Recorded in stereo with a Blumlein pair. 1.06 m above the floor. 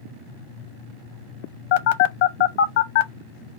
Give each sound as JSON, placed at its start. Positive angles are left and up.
{"t": 1.7, "sound": "a phone buzzing", "azimuth_deg": 50, "distance_m": 0.6}